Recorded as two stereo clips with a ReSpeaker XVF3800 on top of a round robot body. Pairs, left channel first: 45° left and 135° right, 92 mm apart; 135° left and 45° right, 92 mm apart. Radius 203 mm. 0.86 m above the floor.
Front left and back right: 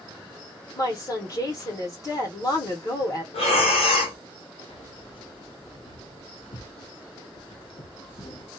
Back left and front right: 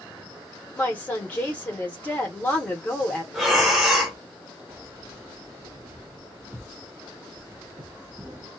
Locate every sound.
0.8 s a woman speaking: 70° left, 1.1 m
3.3 s breathing: 45° left, 0.7 m
4.7 s keys jangling: 20° left, 0.9 m